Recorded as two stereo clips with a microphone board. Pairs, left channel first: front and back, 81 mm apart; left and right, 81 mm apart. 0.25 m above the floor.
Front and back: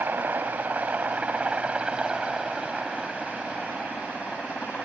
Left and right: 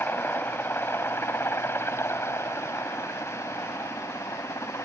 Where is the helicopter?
135° left; by 4.9 s 75° left.